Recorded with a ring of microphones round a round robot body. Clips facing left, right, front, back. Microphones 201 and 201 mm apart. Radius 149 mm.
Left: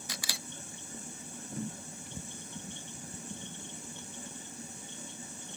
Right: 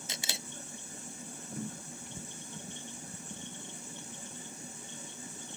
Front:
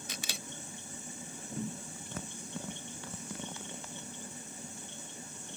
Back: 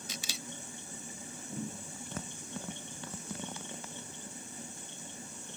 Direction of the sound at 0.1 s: 25° right.